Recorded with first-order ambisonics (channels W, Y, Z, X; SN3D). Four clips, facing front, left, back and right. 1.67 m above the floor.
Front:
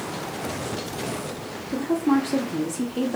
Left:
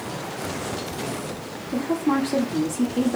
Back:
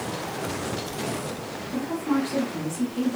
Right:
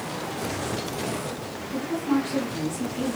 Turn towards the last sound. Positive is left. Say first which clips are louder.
# left 3 dB, front 5 dB
turn(degrees=60)